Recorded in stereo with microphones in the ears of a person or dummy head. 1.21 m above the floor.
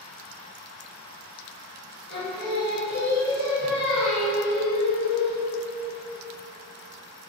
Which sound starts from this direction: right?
Singing, at 2.1 s.